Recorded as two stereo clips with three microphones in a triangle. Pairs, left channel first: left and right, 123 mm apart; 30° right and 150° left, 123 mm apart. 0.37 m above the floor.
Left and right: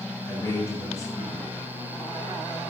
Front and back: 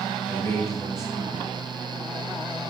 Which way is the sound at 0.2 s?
30° left.